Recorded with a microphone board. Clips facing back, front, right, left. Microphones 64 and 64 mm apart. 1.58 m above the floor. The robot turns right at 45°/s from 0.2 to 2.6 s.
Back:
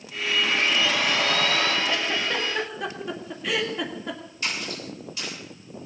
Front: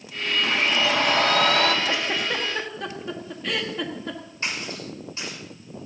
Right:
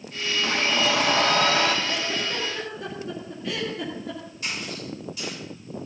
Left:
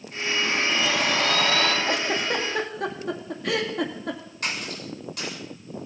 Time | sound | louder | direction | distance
0.4 | a blender | front 2 dB, right 2 dB | 75° right | 2.5 m
1.9 | a giggle | front 1 dB, left 3 dB | 60° left | 2 m
4.4 | a splash | even, left 2 dB | 60° left | 7 m